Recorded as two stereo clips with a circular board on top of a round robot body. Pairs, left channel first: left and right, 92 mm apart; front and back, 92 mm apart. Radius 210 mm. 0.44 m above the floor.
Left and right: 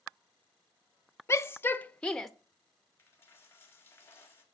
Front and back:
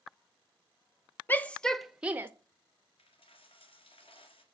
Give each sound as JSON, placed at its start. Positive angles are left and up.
{"t": 1.3, "sound": "a shout", "azimuth_deg": 55, "distance_m": 1.0}
{"t": 3.0, "sound": "a dropped coin", "azimuth_deg": 25, "distance_m": 1.7}